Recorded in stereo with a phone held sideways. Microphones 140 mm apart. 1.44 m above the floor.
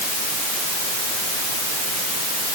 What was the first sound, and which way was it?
Only background noise.